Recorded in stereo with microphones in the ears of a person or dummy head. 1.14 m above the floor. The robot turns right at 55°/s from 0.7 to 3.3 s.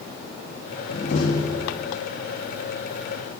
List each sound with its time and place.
0.9 s a door slam: 130° left, 2.5 m; by 1.9 s 170° right, 2.5 m